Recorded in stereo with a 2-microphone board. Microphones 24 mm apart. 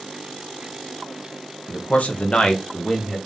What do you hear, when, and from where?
1.7 s a man speaking: 70° left (ahead or behind), 1.2 m; by 3.2 s 15° left (ahead or behind), 1.6 m